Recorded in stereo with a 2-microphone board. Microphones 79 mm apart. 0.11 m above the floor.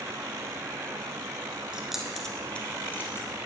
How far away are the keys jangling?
About 0.9 m.